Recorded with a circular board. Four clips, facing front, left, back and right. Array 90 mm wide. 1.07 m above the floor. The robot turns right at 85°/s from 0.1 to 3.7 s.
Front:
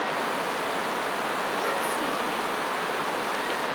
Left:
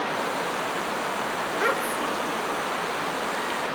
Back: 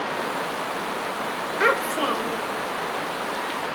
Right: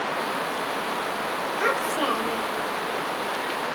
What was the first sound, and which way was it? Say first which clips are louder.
A child speaking: right 2 dB, back 5 dB; straight behind.